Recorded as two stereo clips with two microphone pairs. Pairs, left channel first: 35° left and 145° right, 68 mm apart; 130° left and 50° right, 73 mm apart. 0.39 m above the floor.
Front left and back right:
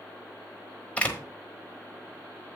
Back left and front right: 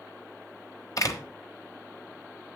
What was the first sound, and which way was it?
A door slam, 105° left.